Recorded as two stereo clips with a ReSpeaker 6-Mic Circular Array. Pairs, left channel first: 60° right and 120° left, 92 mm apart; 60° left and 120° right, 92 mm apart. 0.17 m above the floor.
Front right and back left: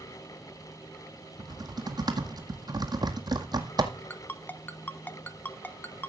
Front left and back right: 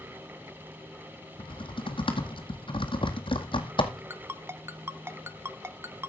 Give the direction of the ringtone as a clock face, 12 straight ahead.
3 o'clock.